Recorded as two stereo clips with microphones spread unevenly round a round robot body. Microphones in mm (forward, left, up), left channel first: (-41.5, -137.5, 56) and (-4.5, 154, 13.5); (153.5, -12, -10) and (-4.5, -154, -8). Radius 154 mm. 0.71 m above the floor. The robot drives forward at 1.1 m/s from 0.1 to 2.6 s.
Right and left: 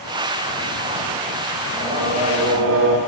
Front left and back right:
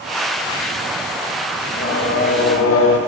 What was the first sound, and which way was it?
Singing, 10° left.